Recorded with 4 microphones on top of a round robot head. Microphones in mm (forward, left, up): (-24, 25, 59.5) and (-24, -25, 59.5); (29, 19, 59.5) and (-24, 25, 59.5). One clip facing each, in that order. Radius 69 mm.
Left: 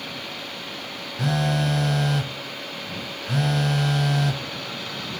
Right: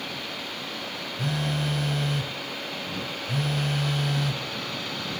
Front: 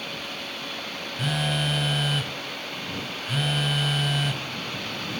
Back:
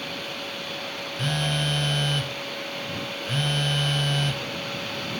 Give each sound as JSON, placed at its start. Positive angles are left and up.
{"t": 1.2, "sound": "a phone buzzing", "azimuth_deg": 80}